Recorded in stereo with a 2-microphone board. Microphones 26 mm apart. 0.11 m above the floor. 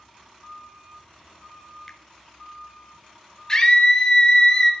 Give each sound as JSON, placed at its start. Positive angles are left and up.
{"t": 1.9, "sound": "a finger snap", "side_deg": 15, "distance_m": 0.9}
{"t": 3.5, "sound": "a scream", "side_deg": 25, "distance_m": 2.0}